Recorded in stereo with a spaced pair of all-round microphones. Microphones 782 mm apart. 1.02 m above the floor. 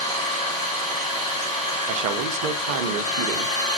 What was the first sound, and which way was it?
An engine running, 5° left (ahead or behind).